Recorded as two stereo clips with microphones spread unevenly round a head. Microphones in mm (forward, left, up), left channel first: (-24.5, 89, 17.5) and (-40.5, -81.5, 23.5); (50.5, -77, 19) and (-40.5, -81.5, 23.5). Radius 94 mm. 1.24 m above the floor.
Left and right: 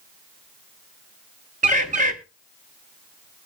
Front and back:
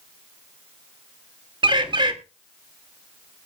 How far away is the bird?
About 2.0 m.